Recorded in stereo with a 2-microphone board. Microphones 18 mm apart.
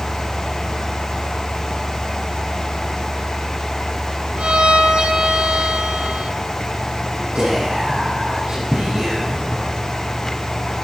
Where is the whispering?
80° right, 8 m.